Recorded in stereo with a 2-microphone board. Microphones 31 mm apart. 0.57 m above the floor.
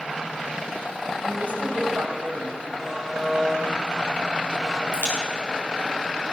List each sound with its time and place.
1.2 s a woman speaking: 75° right (ahead or behind), 3 m
2.8 s a buzzer: centre (ahead or behind), 2.5 m
4.9 s a crack: 75° left (ahead or behind), 6 m